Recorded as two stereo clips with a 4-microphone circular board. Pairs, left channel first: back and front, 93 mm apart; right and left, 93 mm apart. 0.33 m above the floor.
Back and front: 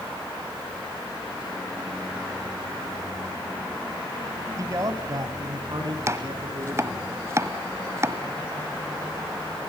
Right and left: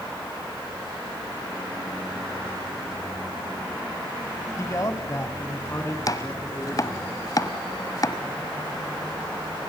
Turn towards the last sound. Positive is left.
turn(degrees=-50)